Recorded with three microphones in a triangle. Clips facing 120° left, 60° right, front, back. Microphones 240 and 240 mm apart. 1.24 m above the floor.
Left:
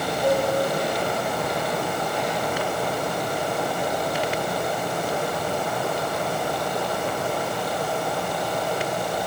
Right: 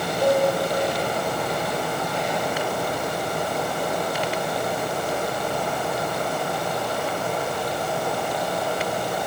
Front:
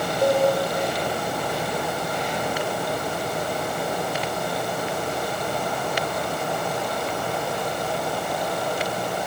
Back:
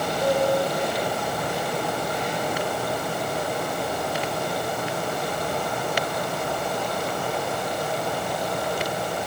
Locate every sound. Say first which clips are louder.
0.2 s a cowbell: right 2 dB, front 3 dB; 55° right, 5.5 m